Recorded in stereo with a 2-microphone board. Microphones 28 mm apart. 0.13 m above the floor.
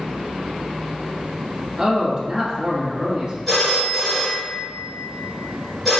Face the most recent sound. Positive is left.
turn(degrees=5)  # may be behind; listen again after turning